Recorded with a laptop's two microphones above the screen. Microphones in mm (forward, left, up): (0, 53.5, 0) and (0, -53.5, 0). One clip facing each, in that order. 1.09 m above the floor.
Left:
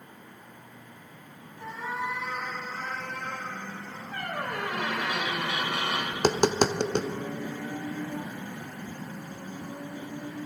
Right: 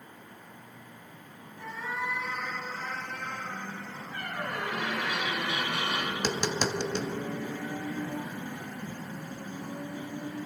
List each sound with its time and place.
1.6 s a cat meowing: 25° left (ahead or behind), 2.5 m; by 4.0 s 60° left (ahead or behind), 4 m
4.1 s a squeak: 75° left (ahead or behind), 3 m
6.1 s tapping: 50° left (ahead or behind), 0.6 m